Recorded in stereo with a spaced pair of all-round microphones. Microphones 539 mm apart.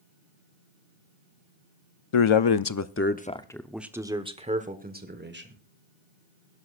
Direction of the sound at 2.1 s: 70° left (ahead or behind).